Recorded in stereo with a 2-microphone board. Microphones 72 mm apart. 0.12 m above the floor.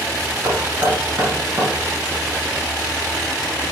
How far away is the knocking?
About 1.9 m.